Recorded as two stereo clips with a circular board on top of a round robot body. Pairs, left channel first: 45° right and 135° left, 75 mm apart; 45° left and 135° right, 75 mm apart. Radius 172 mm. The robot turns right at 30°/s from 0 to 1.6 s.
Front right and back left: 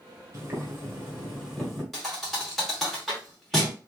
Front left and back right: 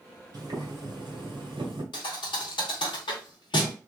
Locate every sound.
0.3 s boiling: 175° right, 1.3 m; by 1.8 s 135° right, 1.3 m
1.9 s a thud: 45° left, 0.8 m